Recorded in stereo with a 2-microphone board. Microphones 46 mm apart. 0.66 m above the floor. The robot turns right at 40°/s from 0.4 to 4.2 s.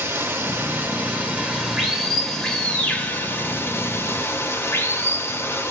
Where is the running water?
70° right, 0.9 m; by 5.7 s 80° left, 0.9 m.